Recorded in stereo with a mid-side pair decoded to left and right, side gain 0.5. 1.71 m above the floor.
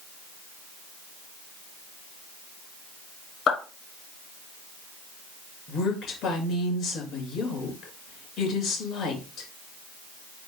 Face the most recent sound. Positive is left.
turn(degrees=60)